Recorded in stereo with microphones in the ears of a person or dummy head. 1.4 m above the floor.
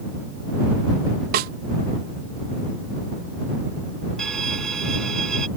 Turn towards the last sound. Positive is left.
turn(degrees=10)  # may be behind; listen again after turning